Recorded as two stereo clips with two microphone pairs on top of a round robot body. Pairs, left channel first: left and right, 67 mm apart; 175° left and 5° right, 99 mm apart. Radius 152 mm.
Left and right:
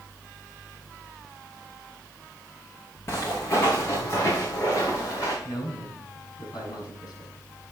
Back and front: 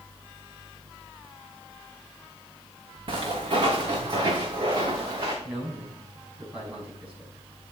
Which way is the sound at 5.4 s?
75° left.